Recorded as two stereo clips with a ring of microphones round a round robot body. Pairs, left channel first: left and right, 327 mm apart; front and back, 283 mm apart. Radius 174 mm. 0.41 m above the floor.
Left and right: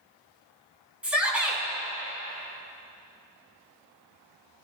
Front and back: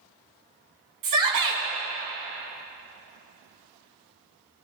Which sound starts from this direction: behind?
A shout, at 1.0 s.